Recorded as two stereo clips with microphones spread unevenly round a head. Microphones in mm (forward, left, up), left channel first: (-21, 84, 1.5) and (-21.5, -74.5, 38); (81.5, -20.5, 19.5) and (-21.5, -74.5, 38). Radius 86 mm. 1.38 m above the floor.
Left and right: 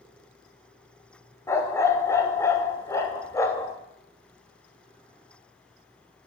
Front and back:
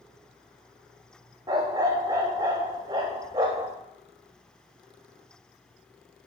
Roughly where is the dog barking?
Behind.